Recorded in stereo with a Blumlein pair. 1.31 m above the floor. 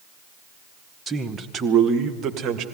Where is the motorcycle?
No motorcycle in this recording.